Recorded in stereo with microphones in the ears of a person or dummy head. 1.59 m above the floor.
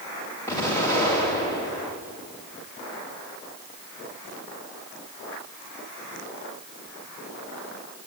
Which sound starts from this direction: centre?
An explosion, at 0.5 s.